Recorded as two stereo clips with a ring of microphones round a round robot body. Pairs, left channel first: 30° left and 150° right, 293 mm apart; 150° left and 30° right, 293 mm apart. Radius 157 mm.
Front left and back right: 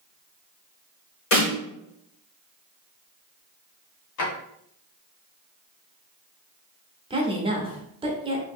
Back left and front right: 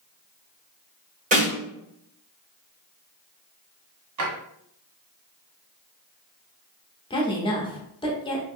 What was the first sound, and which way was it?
A snare drum, 25° left.